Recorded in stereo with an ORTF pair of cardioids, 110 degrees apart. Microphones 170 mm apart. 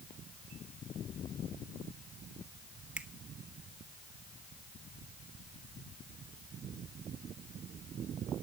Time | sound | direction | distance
3.0 | a finger snap | 5° right | 0.9 m